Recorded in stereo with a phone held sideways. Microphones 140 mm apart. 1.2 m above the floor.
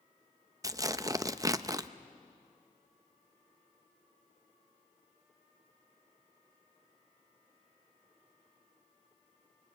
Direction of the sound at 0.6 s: 25° right (ahead or behind).